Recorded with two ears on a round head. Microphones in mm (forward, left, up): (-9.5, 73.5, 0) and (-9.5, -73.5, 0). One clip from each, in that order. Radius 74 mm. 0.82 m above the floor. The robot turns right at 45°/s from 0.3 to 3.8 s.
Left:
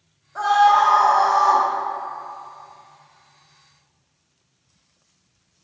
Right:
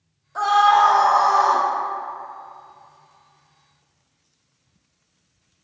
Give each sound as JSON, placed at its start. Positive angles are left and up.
{"t": 0.3, "sound": "a scream", "azimuth_deg": -160, "distance_m": 0.8}